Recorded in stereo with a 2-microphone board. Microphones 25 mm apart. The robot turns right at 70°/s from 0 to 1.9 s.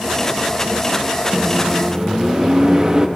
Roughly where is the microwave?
Right.